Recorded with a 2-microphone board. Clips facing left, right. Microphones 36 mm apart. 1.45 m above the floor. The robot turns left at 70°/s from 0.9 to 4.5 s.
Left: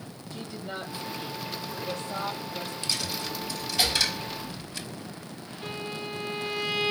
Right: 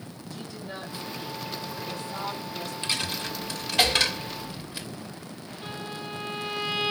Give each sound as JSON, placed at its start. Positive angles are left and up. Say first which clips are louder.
{"t": 0.3, "sound": "a woman speaking", "louder": "left 2 dB", "azimuth_deg": 155, "distance_m": 3.0}
{"t": 2.8, "sound": "a dropped coin", "louder": "right 3 dB", "side_deg": -30, "distance_m": 1.4}
{"t": 5.6, "sound": "a violin", "louder": "left 2 dB", "side_deg": 0, "distance_m": 1.8}